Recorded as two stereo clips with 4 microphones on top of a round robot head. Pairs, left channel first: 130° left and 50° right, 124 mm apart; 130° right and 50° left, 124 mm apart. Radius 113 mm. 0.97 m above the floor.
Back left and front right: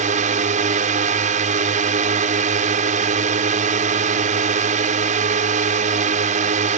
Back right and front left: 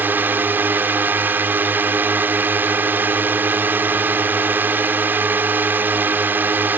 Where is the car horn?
I don't hear a car horn.